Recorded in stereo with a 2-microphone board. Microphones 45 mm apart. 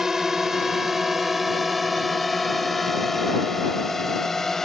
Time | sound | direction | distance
0.0 | a drone | 10° right (ahead or behind) | ?